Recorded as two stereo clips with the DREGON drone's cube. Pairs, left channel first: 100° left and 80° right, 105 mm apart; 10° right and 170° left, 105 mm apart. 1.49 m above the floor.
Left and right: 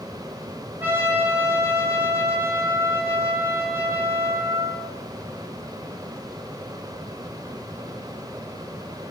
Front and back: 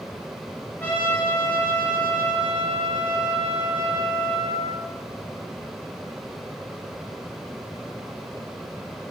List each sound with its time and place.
0.8 s a trumpet: 45° right, 0.8 m